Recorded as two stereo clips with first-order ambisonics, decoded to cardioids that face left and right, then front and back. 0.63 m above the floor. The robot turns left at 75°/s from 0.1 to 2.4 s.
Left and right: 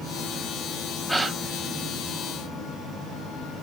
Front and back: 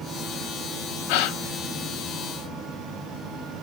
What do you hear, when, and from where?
1.1 s a gasp: straight ahead, 1.7 m; by 1.4 s 25° right, 1.7 m